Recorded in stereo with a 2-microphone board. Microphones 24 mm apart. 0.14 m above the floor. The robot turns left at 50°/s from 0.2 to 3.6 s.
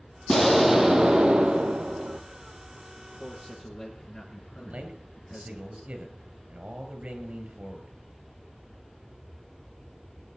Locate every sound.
0.3 s an explosion: 5° left, 1.1 m; by 2.2 s 90° right, 1.1 m
3.0 s a man speaking: 70° left, 2.5 m; by 5.6 s 40° left, 2.5 m
4.6 s a man speaking: 65° right (ahead or behind), 3.5 m